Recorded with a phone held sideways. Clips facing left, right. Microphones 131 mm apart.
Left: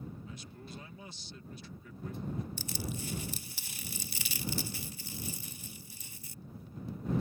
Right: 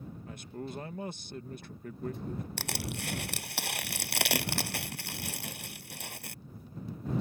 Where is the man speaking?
55° right (ahead or behind).